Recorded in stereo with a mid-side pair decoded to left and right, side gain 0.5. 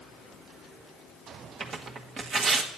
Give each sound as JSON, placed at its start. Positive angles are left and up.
{"t": 1.6, "sound": "tearing paper", "azimuth_deg": -45, "distance_m": 1.3}